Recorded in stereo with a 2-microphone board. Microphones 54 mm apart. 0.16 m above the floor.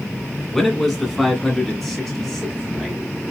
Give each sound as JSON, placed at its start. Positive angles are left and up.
{"t": 0.5, "sound": "a man speaking", "side_deg": 0, "distance_m": 1.7}